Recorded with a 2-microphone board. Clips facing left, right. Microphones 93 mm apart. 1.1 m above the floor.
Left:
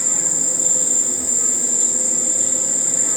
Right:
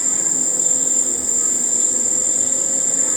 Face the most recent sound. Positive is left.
turn(degrees=-55)  # may be behind; listen again after turning